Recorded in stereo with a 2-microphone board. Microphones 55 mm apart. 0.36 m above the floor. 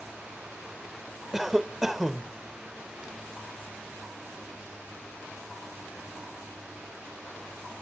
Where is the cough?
5° right (ahead or behind).